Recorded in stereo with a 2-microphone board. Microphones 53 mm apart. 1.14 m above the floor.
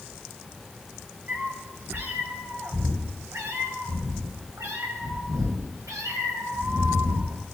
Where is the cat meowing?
40° right (ahead or behind), 3.5 m; by 7.4 s 80° right, 4 m.